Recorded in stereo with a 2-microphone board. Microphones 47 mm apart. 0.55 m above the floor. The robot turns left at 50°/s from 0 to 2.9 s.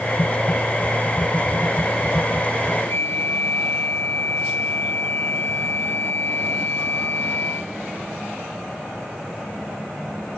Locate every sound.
2.9 s a flute: 50° left (ahead or behind), 5.5 m; by 7.7 s 55° left (ahead or behind), 5.5 m